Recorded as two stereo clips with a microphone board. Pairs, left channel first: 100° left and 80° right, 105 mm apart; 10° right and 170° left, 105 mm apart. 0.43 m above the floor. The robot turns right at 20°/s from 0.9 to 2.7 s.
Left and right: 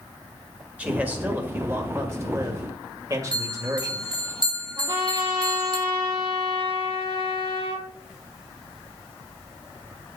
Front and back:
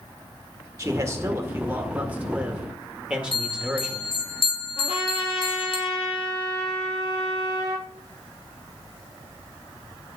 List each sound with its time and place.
0.8 s a man speaking: 150° right, 1.7 m; by 4.1 s 115° right, 1.7 m
3.3 s a bell: 35° right, 2.5 m
4.8 s a trumpet: 35° right, 4 m